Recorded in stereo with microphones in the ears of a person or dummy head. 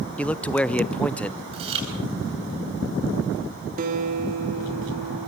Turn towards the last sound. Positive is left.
turn(degrees=-45)  # may be behind; listen again after turning